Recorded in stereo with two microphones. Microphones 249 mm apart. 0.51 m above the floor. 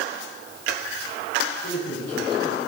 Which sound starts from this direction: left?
A man speaking, at 1.6 s.